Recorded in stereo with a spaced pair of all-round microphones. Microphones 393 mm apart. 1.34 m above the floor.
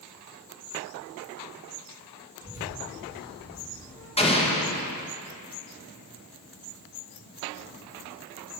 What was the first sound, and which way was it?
A child speaking, 10° right (ahead or behind).